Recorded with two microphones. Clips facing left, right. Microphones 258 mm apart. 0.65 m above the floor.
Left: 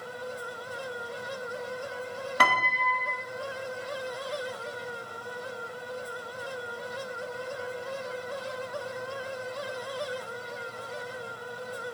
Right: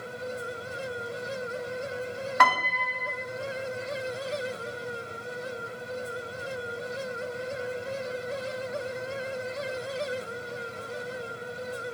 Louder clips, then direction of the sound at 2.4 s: Right 1 dB; 35° left (ahead or behind).